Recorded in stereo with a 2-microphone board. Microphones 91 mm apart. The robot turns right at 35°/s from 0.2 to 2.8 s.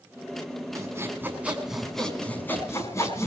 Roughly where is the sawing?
Ahead right.